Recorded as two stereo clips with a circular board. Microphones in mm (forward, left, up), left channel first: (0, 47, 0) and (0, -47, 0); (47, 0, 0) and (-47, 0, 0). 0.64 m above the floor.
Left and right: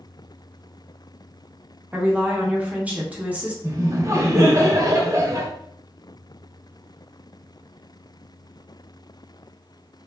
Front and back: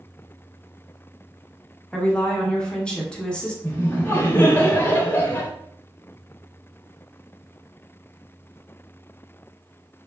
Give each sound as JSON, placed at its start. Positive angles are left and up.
{"t": 1.9, "sound": "a woman speaking", "azimuth_deg": -55, "distance_m": 0.6}
{"t": 3.6, "sound": "laughter", "azimuth_deg": -55, "distance_m": 0.7}